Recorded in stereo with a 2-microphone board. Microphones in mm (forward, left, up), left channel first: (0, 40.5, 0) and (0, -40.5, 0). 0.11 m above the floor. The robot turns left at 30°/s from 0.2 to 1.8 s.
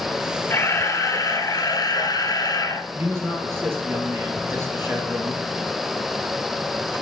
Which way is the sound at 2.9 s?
30° right (ahead or behind).